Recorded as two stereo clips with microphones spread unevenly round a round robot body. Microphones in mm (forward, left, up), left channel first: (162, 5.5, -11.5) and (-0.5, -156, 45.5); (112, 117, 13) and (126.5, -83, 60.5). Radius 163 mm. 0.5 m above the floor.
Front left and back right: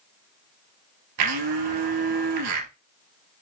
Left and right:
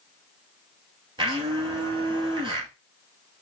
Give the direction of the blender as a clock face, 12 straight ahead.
5 o'clock.